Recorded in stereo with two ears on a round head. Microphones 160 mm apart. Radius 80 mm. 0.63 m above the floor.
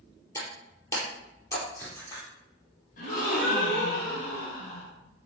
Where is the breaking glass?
20° left (ahead or behind), 4 m.